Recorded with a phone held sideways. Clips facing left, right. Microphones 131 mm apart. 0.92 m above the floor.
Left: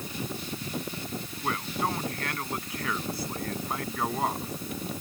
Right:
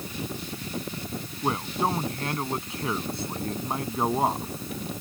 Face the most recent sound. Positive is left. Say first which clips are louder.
# right 4 dB
turn(degrees=-25)  # may be behind; listen again after turning